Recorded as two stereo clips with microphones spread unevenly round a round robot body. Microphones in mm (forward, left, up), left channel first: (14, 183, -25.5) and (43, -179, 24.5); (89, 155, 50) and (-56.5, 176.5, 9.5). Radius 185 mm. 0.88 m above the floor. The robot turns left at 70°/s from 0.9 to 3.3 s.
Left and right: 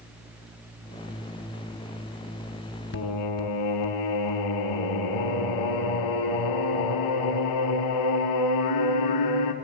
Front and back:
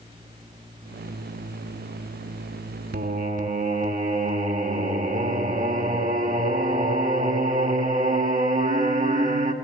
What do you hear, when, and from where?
2.9 s singing: 160° left, 1.7 m; by 9.5 s 135° left, 1.7 m